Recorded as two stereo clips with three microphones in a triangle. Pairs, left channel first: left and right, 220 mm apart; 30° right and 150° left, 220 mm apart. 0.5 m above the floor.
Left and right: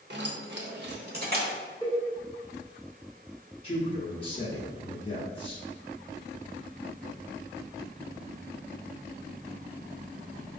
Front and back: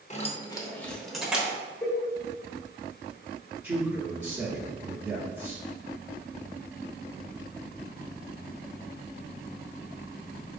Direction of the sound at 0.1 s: 80° right.